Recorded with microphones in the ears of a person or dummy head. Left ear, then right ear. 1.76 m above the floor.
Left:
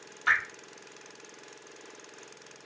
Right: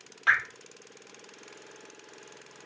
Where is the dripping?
5° right (ahead or behind), 1.1 m.